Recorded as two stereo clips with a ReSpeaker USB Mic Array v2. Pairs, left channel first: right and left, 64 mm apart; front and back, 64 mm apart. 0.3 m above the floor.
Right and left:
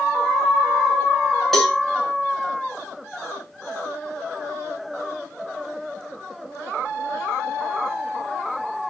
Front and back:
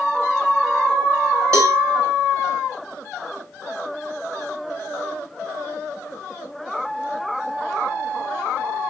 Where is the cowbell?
175° right, 1.2 m.